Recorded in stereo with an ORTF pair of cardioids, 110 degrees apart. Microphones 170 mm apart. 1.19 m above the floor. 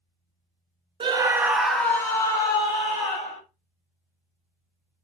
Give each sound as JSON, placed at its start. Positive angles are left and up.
{"t": 1.0, "sound": "a scream", "azimuth_deg": -30, "distance_m": 0.7}